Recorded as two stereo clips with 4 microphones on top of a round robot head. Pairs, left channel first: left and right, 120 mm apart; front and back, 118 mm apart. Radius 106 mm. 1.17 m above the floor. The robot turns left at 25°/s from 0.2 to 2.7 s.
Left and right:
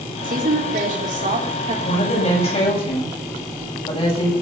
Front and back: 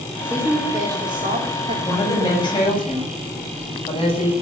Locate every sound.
0.2 s a woman speaking: 95° right, 4 m; by 1.8 s 135° right, 4 m
1.9 s a woman speaking: 65° left, 8.5 m; by 4.3 s 45° left, 8.5 m